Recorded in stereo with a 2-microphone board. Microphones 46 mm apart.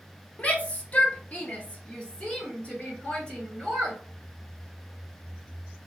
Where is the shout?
30° left (ahead or behind), 0.9 m; by 4.0 s 20° left (ahead or behind), 2 m.